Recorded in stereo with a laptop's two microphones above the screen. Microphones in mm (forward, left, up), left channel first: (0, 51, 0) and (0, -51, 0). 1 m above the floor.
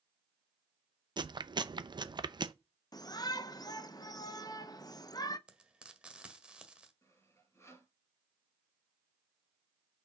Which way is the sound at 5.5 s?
10° right (ahead or behind).